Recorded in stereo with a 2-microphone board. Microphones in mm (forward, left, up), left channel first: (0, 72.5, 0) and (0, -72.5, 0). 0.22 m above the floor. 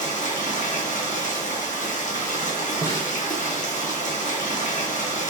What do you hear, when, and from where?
0.0 s running water: 60° left (ahead or behind), 1.1 m
2.8 s a snare drum: 20° left (ahead or behind), 1.0 m